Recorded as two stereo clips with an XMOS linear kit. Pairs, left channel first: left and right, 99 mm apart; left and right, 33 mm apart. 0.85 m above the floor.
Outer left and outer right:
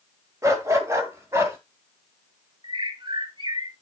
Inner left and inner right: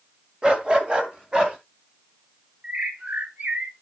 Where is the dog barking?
30° right (ahead or behind), 1.5 m; by 1.6 s 25° right (ahead or behind), 2.5 m.